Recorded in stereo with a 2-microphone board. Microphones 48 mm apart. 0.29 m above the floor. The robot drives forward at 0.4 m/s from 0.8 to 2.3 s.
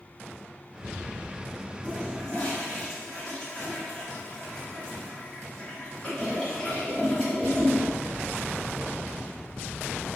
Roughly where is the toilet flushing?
Left.